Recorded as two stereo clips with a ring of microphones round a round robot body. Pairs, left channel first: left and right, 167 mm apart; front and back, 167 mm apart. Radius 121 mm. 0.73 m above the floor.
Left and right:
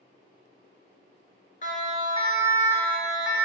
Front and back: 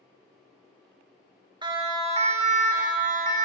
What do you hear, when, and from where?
1.6 s a siren: 125° left, 2.5 m; by 3.5 s 170° right, 2 m